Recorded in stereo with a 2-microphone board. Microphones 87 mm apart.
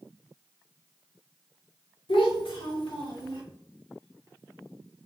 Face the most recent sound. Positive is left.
turn(degrees=75)  # may be behind; listen again after turning